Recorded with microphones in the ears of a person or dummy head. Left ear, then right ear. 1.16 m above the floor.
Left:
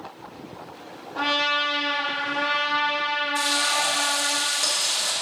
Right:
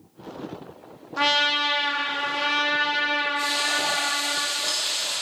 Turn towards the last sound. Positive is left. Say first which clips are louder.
# left 1 dB
turn(degrees=70)  # may be behind; listen again after turning